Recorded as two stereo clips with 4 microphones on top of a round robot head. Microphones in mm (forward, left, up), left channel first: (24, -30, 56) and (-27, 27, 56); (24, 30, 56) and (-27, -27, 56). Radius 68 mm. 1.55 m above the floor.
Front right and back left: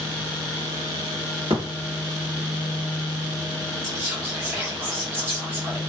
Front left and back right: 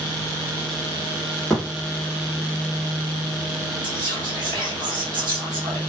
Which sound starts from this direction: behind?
Whispering, at 3.8 s.